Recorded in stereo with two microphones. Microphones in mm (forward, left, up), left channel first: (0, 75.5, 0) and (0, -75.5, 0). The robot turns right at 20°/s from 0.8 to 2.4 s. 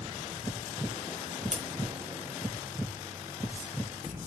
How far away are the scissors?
About 3.5 m.